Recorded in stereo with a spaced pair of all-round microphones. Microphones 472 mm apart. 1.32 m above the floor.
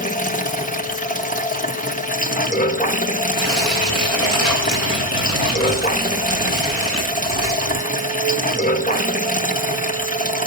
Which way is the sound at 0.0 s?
15° left (ahead or behind).